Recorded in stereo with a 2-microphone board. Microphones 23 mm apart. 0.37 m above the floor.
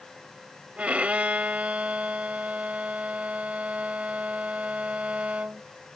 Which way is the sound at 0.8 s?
65° right (ahead or behind).